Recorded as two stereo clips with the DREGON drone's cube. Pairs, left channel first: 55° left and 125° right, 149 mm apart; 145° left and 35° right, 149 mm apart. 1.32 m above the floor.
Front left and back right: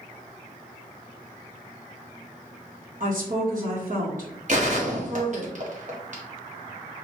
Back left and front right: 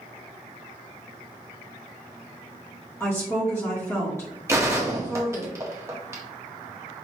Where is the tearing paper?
No tearing paper in this recording.